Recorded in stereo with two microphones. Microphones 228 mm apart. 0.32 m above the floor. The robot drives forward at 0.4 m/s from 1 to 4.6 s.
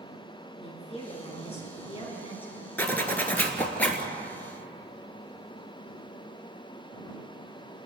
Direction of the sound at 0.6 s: 25° left (ahead or behind).